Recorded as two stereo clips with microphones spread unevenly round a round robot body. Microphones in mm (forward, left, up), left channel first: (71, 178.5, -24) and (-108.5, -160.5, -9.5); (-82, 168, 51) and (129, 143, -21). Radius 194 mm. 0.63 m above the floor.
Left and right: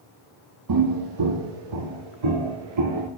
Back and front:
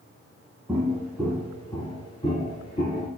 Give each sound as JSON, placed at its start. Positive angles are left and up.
{"t": 0.7, "sound": "footsteps", "azimuth_deg": -105, "distance_m": 0.9}